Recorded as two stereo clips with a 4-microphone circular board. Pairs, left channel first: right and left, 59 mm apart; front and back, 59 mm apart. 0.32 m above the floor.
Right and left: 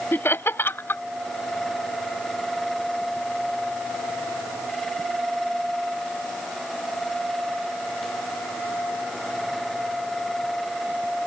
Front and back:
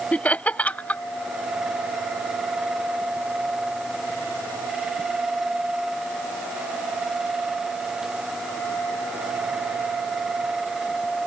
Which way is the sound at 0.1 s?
60° right.